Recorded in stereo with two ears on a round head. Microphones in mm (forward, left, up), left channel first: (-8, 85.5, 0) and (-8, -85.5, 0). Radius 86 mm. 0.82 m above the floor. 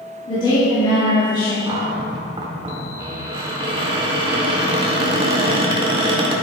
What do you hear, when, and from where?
0.3 s a woman speaking: 25° left (ahead or behind), 2 m
1.7 s a cupboard door: 25° right (ahead or behind), 1.4 m